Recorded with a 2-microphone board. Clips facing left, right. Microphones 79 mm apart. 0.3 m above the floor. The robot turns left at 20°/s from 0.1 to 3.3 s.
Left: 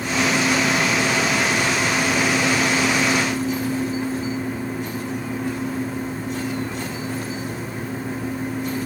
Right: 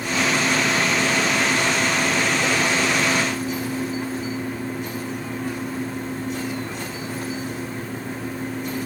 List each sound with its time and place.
Only background noise.